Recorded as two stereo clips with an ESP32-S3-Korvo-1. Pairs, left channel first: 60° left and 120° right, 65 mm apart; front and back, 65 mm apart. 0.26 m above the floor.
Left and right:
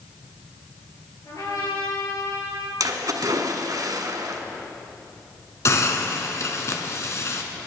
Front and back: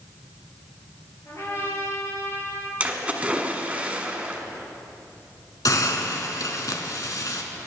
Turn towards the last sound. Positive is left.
turn(degrees=20)